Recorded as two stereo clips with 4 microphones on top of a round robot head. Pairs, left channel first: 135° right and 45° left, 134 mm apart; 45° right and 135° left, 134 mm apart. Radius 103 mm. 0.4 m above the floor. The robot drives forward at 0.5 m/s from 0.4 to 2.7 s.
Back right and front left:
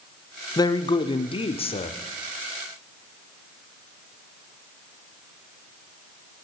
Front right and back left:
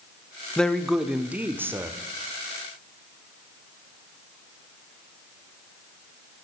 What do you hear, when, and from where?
0.6 s a man speaking: 125° right, 0.9 m; by 2.0 s 160° right, 1.3 m